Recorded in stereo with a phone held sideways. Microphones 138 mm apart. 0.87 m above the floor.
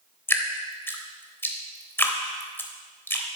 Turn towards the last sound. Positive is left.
turn(degrees=15)  # may be behind; listen again after turning